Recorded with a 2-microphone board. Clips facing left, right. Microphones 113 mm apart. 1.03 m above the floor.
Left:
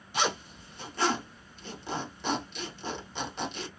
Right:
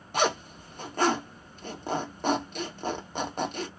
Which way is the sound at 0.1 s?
50° right (ahead or behind).